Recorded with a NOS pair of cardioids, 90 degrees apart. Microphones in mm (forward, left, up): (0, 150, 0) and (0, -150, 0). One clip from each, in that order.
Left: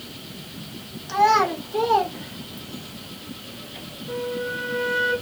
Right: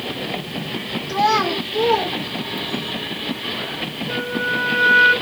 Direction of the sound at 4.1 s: 30° right.